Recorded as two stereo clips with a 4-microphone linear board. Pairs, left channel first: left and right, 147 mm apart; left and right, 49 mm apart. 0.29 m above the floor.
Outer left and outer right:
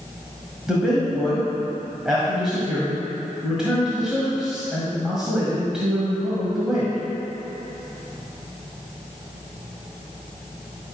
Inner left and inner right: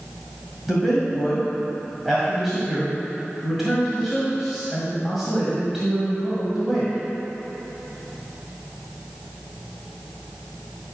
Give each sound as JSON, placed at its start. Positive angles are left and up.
{"t": 0.7, "sound": "a man speaking", "side_deg": -5, "distance_m": 1.8}